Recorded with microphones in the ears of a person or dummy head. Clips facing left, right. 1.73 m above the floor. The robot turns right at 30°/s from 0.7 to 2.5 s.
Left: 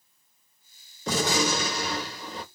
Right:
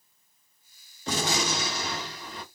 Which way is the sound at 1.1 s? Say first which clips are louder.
Left 4 dB; 95° left.